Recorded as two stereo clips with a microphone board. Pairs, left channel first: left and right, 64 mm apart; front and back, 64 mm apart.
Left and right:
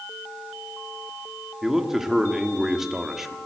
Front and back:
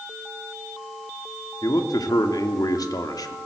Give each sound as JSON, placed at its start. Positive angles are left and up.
{"t": 1.6, "sound": "a man speaking", "azimuth_deg": -5, "distance_m": 2.0}